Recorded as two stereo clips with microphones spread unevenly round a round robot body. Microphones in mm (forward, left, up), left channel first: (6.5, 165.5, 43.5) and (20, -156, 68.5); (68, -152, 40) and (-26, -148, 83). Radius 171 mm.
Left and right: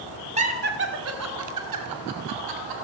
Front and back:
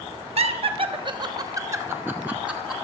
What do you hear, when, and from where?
0.4 s laughter: 160° right, 1.9 m; by 2.8 s 95° right, 3 m